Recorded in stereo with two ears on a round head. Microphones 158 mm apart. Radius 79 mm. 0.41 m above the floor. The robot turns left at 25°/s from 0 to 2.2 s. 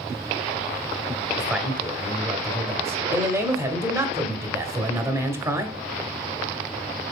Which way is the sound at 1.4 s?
10° right (ahead or behind).